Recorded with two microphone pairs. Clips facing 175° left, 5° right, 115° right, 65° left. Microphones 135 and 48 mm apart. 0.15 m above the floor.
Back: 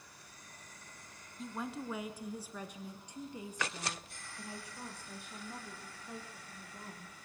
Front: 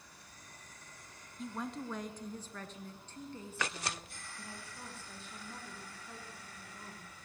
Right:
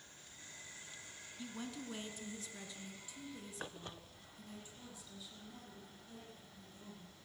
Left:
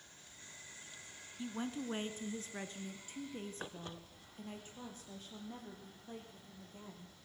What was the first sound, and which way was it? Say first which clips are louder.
A woman speaking: even, left 6 dB; 80° left.